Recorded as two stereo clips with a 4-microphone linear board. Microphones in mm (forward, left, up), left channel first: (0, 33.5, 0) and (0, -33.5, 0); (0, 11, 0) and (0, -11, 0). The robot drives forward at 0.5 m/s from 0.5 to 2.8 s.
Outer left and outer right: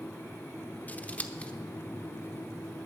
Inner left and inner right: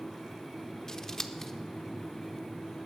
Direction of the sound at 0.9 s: 25° left (ahead or behind).